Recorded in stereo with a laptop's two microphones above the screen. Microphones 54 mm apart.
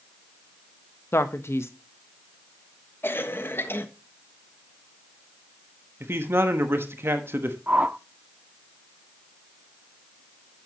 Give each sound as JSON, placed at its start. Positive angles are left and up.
{"t": 1.1, "sound": "a man speaking", "side_deg": 60, "distance_m": 0.8}
{"t": 3.0, "sound": "a cough", "side_deg": 45, "distance_m": 1.3}
{"t": 6.0, "sound": "a man speaking", "side_deg": -50, "distance_m": 1.1}
{"t": 7.7, "sound": "a whoosh", "side_deg": -35, "distance_m": 0.6}